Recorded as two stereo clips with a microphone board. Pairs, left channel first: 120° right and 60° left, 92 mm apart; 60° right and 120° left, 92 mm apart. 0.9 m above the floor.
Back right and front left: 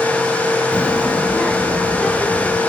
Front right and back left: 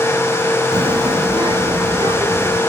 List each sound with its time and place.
0.7 s a child speaking: 165° left, 0.6 m; by 2.6 s 155° left, 2.5 m